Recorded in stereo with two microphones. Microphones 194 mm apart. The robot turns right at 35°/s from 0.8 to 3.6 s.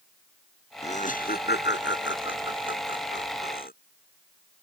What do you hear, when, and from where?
0.8 s laughter: 35° left (ahead or behind); by 3.7 s 50° left (ahead or behind)